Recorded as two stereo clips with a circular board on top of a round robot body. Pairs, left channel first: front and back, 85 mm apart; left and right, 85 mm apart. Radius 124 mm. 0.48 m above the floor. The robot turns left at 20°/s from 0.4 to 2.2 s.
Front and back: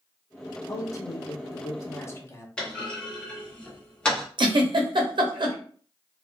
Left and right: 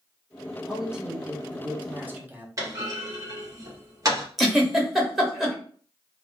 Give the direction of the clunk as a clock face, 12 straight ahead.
2 o'clock.